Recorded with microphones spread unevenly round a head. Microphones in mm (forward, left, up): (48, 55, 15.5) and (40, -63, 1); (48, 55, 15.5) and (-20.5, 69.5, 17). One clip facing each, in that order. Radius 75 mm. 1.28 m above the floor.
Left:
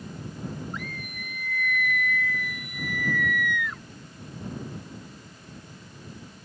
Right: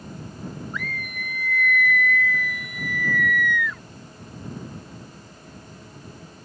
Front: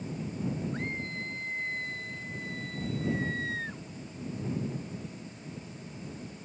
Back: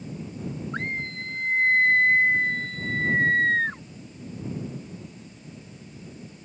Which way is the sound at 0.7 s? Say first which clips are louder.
Right 4 dB, back 4 dB; 135° right.